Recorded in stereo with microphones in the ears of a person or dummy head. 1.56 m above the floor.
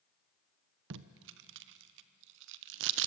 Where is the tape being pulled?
60° right (ahead or behind), 1.0 m.